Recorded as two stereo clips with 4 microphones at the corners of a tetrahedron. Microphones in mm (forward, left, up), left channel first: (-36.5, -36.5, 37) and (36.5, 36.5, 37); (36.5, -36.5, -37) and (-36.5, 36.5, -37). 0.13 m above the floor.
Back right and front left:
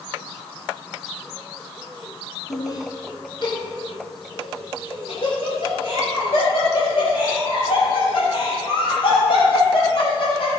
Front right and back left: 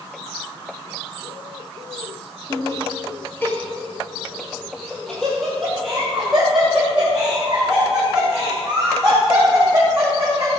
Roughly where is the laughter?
Right.